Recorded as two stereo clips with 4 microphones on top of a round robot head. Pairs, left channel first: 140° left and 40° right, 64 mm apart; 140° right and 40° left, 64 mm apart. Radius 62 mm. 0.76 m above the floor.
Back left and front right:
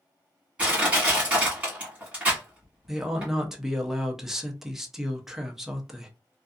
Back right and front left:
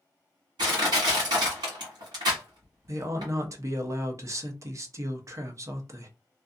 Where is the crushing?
30° left, 1.5 m.